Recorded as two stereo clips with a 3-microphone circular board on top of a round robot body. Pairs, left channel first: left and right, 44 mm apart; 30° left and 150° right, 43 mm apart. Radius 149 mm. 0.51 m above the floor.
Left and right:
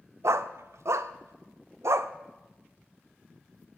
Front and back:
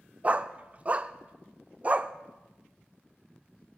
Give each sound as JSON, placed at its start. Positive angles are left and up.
{"t": 0.2, "sound": "a dog barking", "azimuth_deg": -90, "distance_m": 0.6}